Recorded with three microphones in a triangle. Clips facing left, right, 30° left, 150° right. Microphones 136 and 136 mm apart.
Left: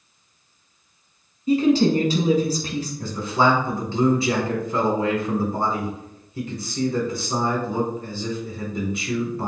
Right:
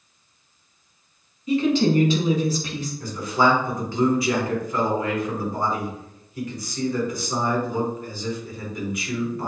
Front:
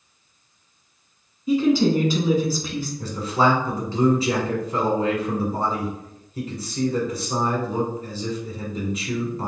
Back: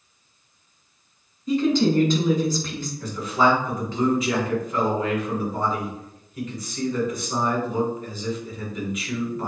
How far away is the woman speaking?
About 1.2 m.